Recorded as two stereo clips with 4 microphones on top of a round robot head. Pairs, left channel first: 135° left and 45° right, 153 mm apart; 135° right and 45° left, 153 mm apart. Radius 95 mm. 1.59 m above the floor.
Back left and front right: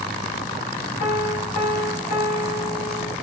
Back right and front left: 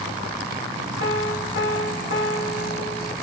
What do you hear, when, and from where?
1.0 s a piano: 175° right, 2 m